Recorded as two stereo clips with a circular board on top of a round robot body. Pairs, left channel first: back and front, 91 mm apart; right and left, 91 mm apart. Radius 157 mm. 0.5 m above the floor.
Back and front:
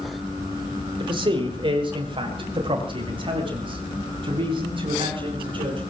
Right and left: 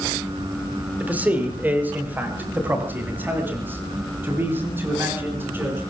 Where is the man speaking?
20° left, 3.5 m; by 5.8 s 25° left, 9.5 m.